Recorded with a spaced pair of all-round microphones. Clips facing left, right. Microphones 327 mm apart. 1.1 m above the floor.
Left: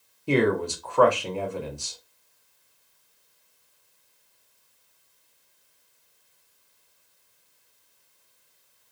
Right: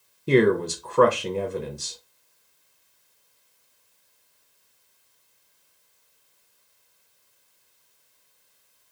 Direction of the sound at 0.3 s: 25° right (ahead or behind).